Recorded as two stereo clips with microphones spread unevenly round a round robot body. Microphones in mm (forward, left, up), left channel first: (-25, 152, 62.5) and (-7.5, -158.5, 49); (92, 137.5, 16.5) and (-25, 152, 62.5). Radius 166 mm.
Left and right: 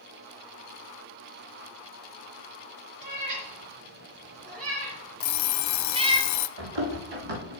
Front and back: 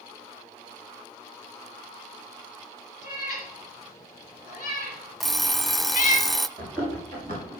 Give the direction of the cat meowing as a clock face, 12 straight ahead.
2 o'clock.